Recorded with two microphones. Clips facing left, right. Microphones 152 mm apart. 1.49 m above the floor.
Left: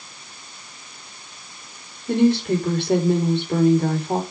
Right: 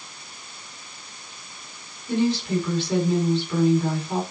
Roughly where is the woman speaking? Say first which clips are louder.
Left 5 dB; left.